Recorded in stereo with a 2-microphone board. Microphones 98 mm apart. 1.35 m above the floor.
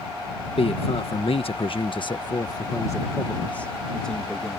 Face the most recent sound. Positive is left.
turn(degrees=5)  # may be behind; listen again after turning